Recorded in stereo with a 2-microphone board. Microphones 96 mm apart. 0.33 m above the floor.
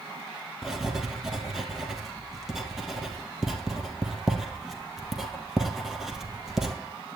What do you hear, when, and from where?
0.6 s writing: 5° right (ahead or behind), 2 m